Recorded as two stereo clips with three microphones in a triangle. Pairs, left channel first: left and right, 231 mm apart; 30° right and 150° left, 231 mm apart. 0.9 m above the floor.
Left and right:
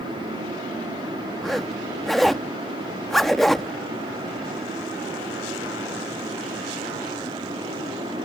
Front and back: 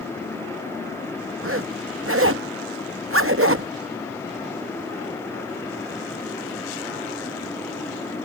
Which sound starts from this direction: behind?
A zipper, at 1.4 s.